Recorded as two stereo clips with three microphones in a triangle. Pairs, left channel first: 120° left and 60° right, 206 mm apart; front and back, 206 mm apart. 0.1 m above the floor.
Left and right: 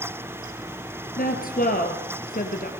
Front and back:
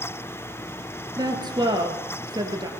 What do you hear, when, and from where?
1.2 s a woman speaking: 120° left, 1.7 m